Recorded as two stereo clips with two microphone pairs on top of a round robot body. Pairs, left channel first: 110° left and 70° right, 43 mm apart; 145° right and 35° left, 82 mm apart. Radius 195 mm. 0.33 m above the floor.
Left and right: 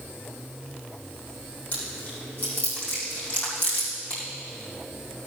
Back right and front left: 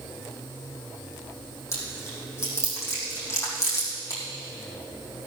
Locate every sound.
1.7 s chewing: 160° left, 4.5 m